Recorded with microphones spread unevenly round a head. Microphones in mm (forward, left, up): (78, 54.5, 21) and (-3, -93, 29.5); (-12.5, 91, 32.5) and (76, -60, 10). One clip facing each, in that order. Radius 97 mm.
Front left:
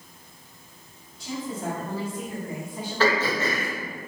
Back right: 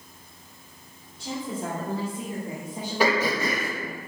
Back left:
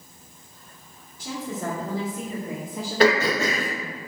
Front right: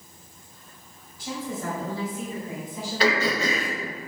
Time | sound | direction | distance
1.2 | a woman speaking | 175° left | 2.5 m
3.0 | throat clearing | 160° left | 1.2 m